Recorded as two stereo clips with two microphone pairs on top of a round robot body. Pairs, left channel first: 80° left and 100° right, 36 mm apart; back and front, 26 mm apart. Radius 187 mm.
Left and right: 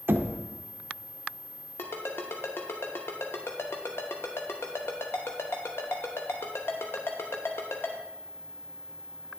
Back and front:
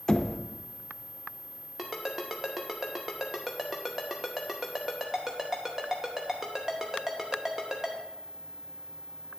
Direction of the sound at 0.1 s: 120° right.